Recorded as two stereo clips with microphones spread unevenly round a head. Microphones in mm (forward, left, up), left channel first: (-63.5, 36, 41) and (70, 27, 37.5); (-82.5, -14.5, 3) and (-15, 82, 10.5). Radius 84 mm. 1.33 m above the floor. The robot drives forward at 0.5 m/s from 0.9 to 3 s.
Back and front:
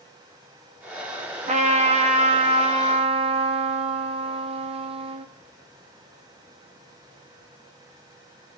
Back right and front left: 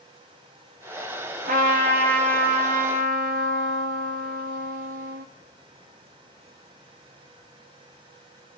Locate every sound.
1.5 s a trumpet: 30° left, 3 m; by 5.3 s 40° left, 2 m